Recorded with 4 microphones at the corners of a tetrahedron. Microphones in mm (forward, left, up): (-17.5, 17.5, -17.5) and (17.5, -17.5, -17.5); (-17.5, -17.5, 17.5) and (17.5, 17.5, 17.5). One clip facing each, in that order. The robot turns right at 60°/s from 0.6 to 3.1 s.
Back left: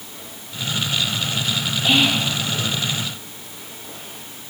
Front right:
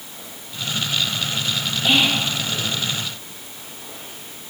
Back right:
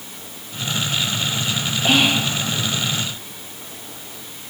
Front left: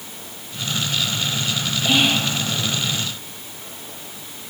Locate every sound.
1.9 s whispering: 130° right, 1.0 m; by 2.2 s 110° right, 1.0 m